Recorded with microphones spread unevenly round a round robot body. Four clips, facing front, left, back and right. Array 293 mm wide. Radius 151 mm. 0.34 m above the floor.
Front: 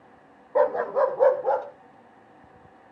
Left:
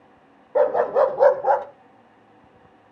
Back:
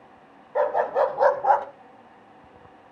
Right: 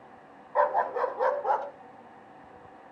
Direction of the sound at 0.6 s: 60° left.